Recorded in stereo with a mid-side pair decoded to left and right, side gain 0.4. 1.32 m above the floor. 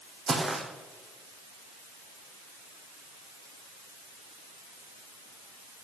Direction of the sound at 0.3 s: 35° right.